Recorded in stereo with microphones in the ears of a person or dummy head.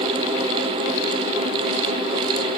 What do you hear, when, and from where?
Only background noise.